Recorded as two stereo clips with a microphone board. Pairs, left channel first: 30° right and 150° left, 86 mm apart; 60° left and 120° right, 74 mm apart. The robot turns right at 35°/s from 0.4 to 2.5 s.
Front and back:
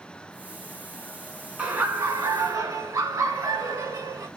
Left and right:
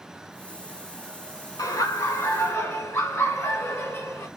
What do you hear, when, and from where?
1.6 s laughter: 80° left, 1.4 m; by 4.3 s 115° left, 1.4 m